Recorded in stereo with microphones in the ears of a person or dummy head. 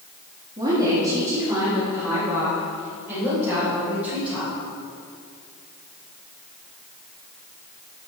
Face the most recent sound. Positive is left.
turn(degrees=-5)  # may be behind; listen again after turning